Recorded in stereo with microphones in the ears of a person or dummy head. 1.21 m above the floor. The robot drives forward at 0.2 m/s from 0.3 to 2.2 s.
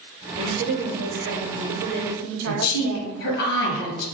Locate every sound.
0.4 s a woman speaking: 50° right (ahead or behind), 0.6 m; by 3.3 s 80° right, 0.5 m
2.5 s a woman speaking: 60° left (ahead or behind), 0.9 m